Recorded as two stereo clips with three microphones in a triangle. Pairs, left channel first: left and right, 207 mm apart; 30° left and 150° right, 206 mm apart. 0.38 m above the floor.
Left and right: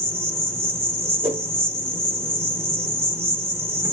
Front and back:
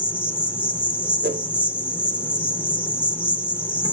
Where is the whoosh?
145° right, 0.8 m.